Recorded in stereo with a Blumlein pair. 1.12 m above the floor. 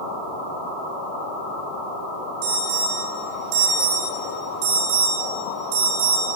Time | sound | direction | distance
2.4 | an alarm | 45° right | 7 m